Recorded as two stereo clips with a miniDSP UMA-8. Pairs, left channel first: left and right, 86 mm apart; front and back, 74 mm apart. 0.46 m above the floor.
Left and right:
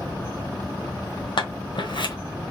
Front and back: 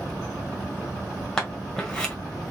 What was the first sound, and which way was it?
Scissors, 75° left.